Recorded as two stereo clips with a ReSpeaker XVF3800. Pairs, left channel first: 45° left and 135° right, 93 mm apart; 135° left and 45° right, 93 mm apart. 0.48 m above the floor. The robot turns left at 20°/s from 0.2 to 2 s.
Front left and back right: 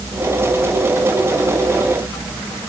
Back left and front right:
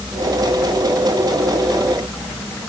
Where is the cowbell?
No cowbell in this recording.